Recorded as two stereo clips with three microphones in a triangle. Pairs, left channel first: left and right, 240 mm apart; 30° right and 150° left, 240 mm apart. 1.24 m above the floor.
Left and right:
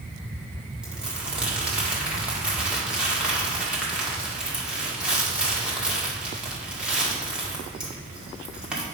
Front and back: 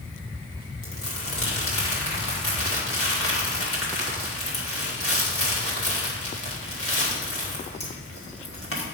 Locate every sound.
0.8 s crumpling: 5° right, 1.8 m